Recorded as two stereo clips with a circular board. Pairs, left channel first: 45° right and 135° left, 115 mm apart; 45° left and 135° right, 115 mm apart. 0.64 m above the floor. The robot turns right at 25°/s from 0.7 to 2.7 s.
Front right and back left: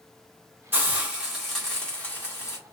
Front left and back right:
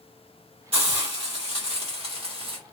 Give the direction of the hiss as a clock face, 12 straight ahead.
5 o'clock.